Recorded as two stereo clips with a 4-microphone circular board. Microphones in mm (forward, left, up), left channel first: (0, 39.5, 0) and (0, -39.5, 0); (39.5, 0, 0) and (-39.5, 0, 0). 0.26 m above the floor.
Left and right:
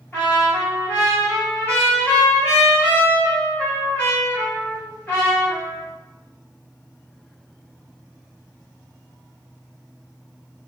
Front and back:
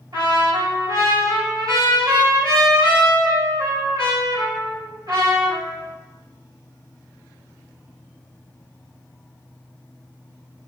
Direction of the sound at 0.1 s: 155° left.